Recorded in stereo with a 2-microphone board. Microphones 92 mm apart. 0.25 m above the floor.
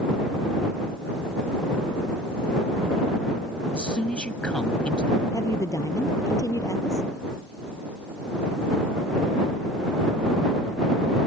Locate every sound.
3.7 s a man speaking: 10° left (ahead or behind)
5.3 s a woman speaking: 35° left (ahead or behind)